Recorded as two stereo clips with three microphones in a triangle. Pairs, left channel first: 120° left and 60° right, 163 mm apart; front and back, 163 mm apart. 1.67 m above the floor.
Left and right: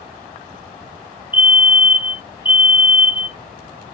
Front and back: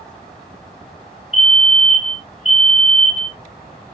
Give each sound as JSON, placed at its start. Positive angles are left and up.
{"t": 1.3, "sound": "a fire alarm", "azimuth_deg": 15, "distance_m": 0.6}